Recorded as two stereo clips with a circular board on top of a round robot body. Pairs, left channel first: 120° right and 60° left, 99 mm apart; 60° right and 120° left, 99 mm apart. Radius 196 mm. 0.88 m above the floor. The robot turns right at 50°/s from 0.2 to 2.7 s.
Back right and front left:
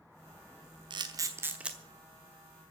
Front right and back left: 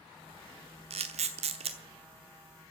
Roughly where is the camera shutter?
Left.